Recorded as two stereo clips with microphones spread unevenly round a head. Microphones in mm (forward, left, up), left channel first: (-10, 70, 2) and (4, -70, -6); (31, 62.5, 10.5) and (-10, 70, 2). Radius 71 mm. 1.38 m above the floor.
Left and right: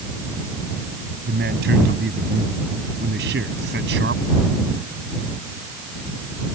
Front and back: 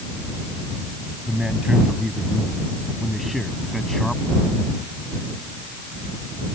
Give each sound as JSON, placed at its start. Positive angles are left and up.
{"t": 1.3, "sound": "a man speaking", "azimuth_deg": -110}